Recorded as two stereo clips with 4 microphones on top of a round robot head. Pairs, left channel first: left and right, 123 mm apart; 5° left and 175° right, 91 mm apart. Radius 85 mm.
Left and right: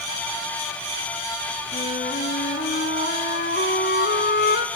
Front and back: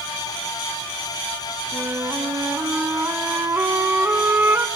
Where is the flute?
115° left, 1.4 m.